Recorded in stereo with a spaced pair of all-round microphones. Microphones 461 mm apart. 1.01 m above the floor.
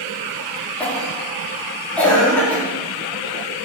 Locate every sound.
0.8 s a cough: 5° left (ahead or behind), 2.5 m